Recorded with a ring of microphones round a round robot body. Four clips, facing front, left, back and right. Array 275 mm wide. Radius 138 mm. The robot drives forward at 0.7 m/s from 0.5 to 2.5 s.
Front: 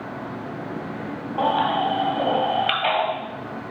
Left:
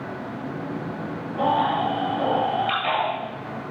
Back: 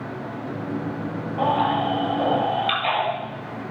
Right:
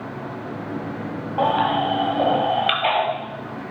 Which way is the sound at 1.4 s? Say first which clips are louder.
Right 2 dB, even; 55° right.